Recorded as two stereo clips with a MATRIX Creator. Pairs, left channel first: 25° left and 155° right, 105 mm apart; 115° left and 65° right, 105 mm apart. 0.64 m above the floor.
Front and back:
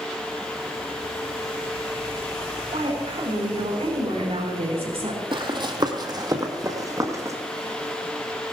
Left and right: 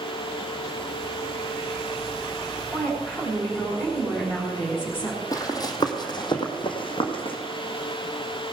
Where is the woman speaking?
175° right, 5.5 m.